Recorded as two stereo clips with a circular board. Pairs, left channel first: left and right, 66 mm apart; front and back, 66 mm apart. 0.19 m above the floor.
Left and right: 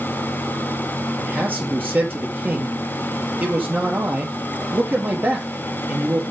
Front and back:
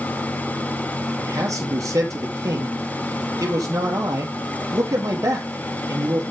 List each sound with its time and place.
1.2 s a man speaking: 150° right, 4 m